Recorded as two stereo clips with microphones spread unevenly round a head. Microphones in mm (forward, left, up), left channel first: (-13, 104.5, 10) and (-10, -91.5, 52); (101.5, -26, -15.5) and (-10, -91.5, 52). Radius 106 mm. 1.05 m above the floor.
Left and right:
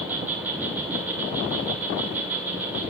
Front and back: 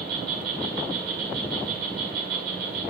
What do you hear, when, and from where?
0.0 s an insect: 175° right, 1.9 m